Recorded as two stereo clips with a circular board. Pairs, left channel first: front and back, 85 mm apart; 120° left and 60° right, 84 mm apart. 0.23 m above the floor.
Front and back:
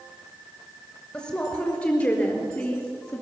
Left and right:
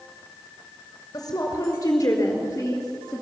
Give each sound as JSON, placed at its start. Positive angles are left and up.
{"t": 1.1, "sound": "a woman speaking", "azimuth_deg": 70, "distance_m": 3.0}